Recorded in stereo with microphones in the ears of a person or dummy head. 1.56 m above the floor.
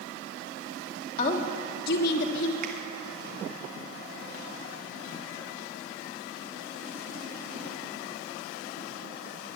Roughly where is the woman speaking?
Left.